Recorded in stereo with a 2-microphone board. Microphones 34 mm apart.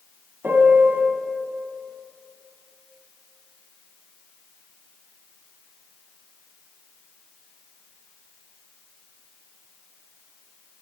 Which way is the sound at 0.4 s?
65° right (ahead or behind).